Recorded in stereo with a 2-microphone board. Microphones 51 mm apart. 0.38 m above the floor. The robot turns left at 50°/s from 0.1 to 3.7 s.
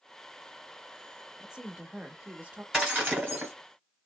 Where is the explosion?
No explosion in this recording.